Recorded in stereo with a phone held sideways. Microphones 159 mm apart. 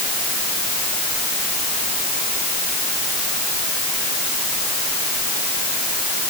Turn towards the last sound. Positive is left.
No sound to turn to.